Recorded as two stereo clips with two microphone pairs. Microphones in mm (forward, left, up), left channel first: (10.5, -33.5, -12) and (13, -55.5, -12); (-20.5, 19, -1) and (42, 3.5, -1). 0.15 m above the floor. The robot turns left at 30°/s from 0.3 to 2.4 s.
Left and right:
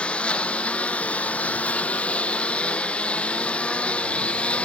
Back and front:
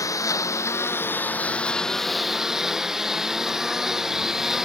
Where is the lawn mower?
130° left; by 4.7 s 70° left.